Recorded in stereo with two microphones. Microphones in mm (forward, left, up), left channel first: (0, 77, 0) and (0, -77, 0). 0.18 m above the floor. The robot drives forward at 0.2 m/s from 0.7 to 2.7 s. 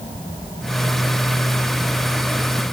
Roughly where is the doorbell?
No doorbell in this recording.